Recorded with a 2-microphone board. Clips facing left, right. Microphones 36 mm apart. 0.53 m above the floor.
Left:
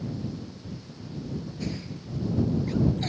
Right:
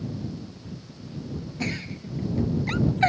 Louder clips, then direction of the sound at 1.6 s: Right 4 dB; 80° right.